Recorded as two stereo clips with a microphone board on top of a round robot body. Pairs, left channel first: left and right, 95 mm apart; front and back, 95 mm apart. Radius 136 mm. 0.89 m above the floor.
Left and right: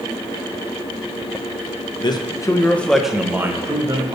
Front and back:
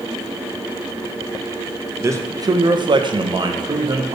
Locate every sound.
2.0 s a man speaking: 120° left, 1.2 m; by 4.2 s 135° right, 1.5 m